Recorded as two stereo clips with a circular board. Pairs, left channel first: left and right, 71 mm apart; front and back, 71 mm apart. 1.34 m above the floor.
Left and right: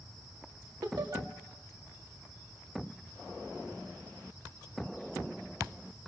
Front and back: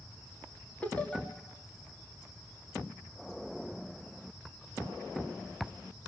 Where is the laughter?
70° right, 2.5 m.